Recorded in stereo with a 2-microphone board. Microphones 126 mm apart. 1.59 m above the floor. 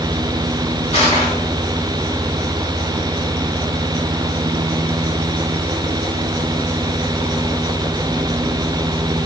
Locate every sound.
0.9 s crushing: 50° left (ahead or behind), 3 m